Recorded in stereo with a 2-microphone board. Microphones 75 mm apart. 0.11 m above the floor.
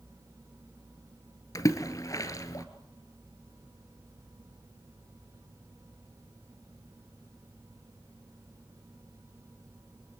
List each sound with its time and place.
1.6 s a splash: 50° left (ahead or behind), 2 m